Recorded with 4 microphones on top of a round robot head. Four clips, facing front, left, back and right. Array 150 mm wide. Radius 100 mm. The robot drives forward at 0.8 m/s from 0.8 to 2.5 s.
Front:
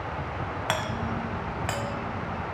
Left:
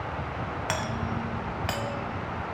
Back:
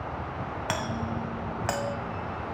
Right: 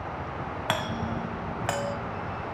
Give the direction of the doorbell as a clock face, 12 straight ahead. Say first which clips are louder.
Right 3 dB, front 1 dB; 2 o'clock.